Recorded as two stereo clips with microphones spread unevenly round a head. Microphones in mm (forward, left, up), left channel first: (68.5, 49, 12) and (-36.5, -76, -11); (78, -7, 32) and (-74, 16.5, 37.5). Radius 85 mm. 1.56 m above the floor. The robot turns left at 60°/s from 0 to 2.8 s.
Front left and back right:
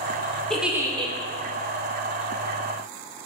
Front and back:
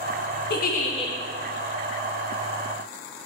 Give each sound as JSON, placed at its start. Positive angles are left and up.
{"t": 0.5, "sound": "a giggle", "azimuth_deg": -35, "distance_m": 1.2}